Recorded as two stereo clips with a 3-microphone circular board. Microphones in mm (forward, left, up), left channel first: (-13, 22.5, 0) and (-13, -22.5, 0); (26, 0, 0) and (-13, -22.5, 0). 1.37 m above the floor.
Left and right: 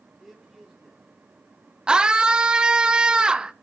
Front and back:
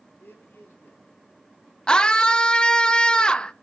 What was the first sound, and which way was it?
A man speaking, straight ahead.